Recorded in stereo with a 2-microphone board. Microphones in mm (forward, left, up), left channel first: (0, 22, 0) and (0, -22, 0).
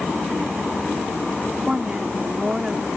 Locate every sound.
1.7 s a woman speaking: 25° right (ahead or behind)